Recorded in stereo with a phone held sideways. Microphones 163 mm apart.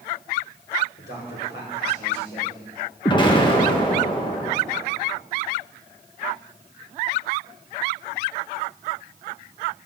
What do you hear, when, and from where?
1.0 s a man speaking: 85° left, 6.5 m
3.0 s an explosion: 25° left (ahead or behind), 1.7 m